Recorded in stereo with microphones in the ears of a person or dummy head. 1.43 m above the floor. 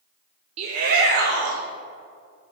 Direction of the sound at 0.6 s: 30° right (ahead or behind).